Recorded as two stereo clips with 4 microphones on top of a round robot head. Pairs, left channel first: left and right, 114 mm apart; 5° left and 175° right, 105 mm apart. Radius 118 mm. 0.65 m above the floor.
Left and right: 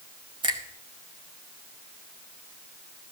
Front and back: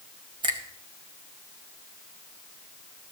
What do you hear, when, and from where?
0.4 s a finger snap: 135° right, 1.9 m